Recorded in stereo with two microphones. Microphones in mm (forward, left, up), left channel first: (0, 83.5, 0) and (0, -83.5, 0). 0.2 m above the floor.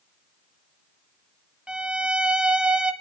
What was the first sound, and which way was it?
A violin, 5° right (ahead or behind).